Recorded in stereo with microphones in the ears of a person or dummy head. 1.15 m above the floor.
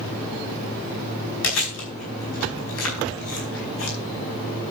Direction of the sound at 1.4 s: 85° left.